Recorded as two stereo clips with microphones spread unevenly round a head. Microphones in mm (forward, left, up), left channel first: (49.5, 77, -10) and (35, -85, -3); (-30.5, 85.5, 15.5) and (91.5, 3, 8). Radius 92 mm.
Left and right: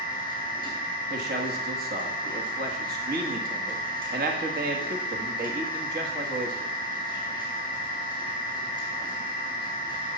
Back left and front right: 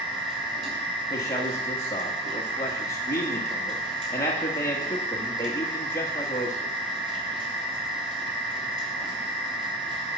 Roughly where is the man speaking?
Behind right.